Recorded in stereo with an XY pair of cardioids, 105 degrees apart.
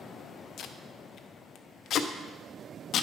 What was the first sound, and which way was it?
Tape being pulled, 65° left.